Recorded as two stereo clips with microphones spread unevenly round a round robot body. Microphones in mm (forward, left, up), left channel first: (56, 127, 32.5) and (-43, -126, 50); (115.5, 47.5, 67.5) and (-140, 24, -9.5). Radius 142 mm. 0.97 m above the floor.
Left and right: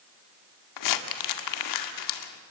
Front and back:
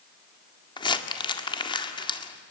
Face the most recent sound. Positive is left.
turn(degrees=80)